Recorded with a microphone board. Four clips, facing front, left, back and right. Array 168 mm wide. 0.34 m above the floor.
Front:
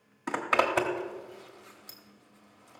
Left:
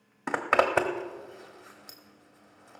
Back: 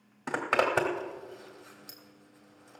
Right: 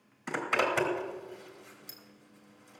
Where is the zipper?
95° left, 1.3 m.